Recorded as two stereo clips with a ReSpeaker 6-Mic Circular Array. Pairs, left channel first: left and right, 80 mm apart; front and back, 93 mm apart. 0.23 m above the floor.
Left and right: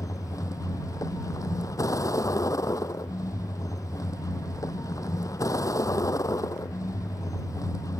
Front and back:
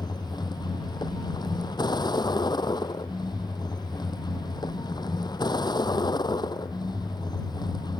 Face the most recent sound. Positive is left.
turn(degrees=45)